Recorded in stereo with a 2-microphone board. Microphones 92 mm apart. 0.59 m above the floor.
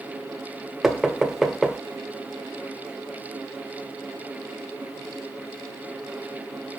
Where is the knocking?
5° right (ahead or behind), 1.7 m.